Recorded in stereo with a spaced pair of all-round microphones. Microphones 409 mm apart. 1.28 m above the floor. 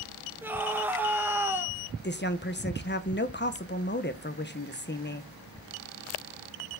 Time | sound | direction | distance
0.4 | a scream | 5° right (ahead or behind) | 1.8 m
2.0 | a woman speaking | 25° left (ahead or behind) | 1.0 m